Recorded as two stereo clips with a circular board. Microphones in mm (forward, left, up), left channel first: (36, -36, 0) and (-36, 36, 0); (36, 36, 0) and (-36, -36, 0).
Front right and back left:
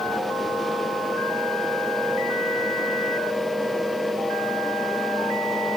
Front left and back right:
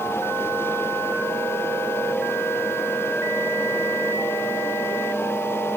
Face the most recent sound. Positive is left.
No sound to turn to.